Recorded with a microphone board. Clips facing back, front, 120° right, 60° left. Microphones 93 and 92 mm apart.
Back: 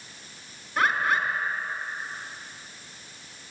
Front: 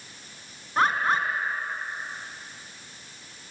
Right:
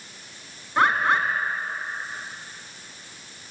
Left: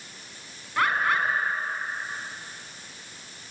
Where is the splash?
No splash in this recording.